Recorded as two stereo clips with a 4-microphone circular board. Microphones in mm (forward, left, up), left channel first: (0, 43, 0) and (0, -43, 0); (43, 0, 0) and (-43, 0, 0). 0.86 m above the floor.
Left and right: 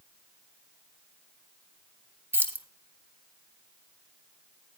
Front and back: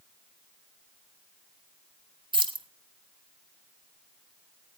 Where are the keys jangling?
155° right, 1.2 m.